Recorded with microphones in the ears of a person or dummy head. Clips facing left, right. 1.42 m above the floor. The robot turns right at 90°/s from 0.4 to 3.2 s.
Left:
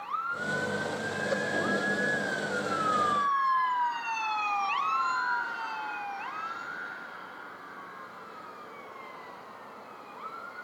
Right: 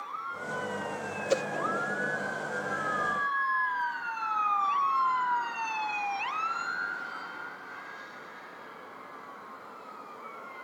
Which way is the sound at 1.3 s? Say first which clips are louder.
Right 5 dB; 40° right (ahead or behind).